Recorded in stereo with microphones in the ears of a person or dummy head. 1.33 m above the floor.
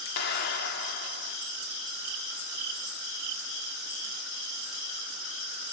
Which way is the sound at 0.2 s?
65° left (ahead or behind).